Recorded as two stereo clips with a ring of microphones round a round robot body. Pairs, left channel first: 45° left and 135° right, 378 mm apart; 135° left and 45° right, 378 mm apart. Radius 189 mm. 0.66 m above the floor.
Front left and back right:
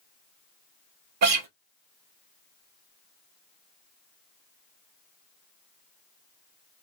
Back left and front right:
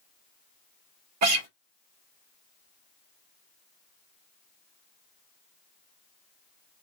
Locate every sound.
1.2 s a guitar: 90° right, 1.2 m